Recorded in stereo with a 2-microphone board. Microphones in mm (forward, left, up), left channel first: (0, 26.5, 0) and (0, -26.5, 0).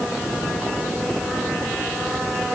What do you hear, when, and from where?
Only background noise.